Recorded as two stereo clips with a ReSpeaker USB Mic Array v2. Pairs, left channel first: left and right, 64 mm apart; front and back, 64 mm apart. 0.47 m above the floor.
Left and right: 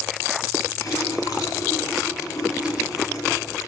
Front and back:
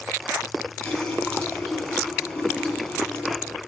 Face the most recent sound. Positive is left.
turn(degrees=70)